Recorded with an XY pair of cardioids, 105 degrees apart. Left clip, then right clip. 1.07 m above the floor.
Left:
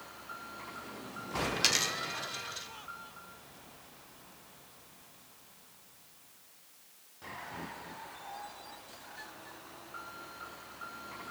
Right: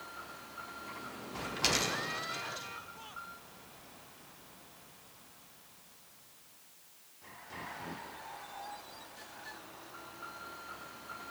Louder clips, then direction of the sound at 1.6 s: Even; 25° left.